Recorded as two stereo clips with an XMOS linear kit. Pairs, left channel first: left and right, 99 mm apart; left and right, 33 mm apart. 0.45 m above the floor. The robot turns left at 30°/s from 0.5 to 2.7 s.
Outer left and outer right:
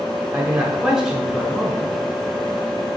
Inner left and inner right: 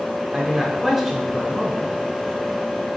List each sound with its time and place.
0.3 s a man speaking: 15° right (ahead or behind), 0.8 m; by 2.0 s 5° left (ahead or behind), 0.8 m